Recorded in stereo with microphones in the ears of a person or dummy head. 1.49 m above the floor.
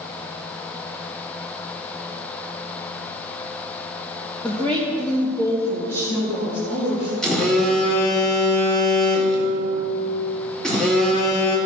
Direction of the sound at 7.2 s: 5° left (ahead or behind).